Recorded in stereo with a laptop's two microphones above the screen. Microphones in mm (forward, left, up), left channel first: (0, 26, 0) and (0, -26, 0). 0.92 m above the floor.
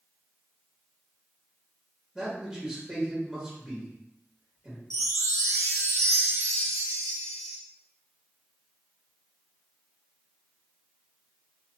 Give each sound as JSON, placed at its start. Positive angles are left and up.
{"t": 2.1, "sound": "a man speaking", "side_deg": -10, "distance_m": 1.6}
{"t": 4.9, "sound": "a chime", "side_deg": -75, "distance_m": 0.5}